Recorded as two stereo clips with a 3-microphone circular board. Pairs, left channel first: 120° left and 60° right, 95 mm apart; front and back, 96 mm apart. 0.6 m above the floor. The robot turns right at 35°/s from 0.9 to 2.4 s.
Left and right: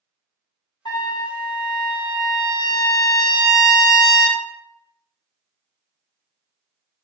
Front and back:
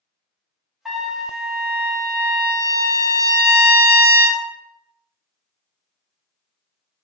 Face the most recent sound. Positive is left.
turn(degrees=145)